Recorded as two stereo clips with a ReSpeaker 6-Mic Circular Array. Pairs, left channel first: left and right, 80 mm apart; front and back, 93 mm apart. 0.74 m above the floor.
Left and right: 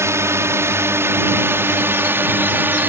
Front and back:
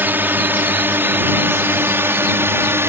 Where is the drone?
120° right; by 2.9 s 135° right.